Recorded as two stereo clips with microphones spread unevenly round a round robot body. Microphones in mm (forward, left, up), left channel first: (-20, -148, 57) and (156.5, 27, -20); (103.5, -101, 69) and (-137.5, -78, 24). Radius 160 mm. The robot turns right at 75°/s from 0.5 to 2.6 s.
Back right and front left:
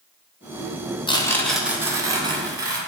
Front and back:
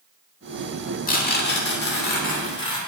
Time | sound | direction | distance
1.1 | tearing paper | 50° right | 1.4 m